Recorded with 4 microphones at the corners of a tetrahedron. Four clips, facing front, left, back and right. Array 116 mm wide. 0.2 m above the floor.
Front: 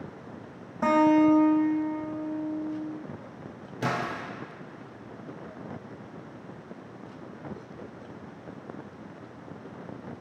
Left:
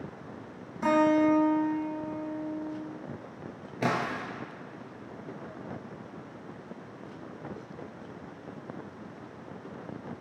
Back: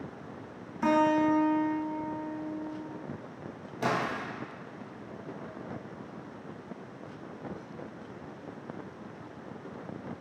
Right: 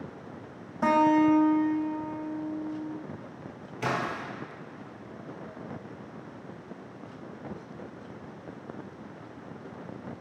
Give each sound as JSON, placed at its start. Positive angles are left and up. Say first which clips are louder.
{"t": 0.8, "sound": "a guitar", "louder": "right 1 dB, front 4 dB", "azimuth_deg": -30, "distance_m": 1.5}
{"t": 3.8, "sound": "a splash", "louder": "left 1 dB, even", "azimuth_deg": 70, "distance_m": 1.1}